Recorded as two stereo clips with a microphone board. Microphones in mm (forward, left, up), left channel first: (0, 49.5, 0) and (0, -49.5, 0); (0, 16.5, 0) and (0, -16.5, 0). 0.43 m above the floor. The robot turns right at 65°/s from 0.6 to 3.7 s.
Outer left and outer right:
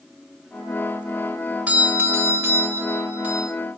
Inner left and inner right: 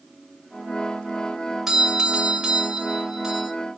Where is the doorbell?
15° right (ahead or behind), 1.5 m; by 3.5 s 10° right (ahead or behind), 1.5 m.